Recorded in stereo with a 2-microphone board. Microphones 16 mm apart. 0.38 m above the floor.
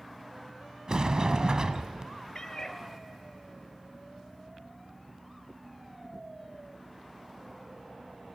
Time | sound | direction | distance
0.9 | a sliding door | 40° right (ahead or behind) | 0.7 m
2.4 | a cat meowing | 35° left (ahead or behind) | 0.6 m